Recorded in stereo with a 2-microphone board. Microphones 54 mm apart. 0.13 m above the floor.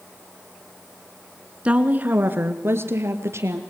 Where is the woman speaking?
25° right (ahead or behind), 1.6 m; by 3.6 s 65° right (ahead or behind), 3 m.